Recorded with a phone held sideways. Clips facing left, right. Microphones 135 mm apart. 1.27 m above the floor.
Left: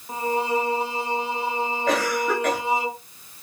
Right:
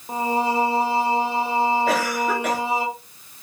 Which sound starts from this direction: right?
Singing, at 0.1 s.